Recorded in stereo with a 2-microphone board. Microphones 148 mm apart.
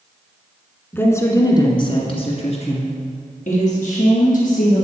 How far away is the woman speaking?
About 1.3 m.